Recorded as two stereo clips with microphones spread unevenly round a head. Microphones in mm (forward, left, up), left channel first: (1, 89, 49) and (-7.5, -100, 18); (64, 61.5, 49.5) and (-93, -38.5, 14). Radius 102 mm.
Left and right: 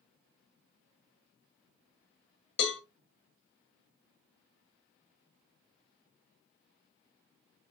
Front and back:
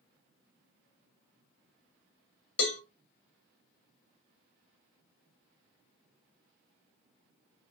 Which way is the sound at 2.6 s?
55° left.